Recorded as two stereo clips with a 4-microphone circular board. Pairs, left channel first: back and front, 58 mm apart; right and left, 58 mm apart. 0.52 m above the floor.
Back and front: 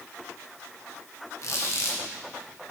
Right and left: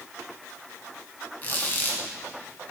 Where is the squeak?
150° right, 1.2 m.